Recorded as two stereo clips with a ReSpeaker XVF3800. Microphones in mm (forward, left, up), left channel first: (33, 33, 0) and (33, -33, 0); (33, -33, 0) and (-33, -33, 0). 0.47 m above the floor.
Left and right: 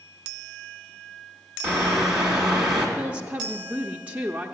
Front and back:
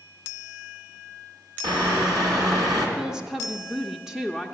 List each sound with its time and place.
1.6 s a bird: 165° right, 3 m
3.0 s a woman speaking: 110° right, 0.7 m